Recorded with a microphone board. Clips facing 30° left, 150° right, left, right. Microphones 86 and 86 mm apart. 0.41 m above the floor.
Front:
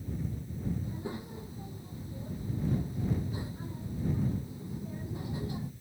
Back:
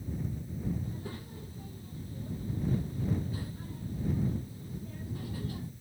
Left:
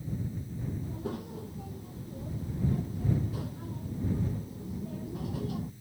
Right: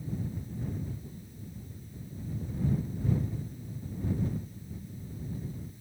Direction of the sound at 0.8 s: 100° left.